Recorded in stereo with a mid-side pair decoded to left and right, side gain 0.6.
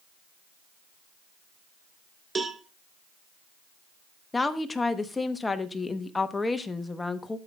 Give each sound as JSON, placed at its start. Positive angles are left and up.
{"t": 2.4, "sound": "a cowbell", "azimuth_deg": -25, "distance_m": 0.9}
{"t": 4.3, "sound": "a woman speaking", "azimuth_deg": 20, "distance_m": 1.0}